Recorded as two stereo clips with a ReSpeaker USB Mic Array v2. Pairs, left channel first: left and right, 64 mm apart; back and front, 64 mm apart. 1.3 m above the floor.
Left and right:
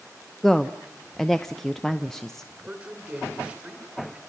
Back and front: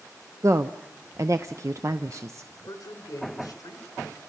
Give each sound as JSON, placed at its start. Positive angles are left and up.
{"t": 0.4, "sound": "a woman speaking", "azimuth_deg": 10, "distance_m": 0.7}
{"t": 2.6, "sound": "a man speaking", "azimuth_deg": -155, "distance_m": 4.5}